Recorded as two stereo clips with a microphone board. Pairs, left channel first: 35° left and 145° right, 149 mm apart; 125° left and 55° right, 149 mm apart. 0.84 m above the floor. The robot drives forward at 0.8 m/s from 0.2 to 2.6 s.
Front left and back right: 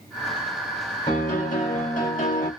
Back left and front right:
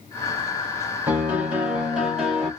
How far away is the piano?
About 3 m.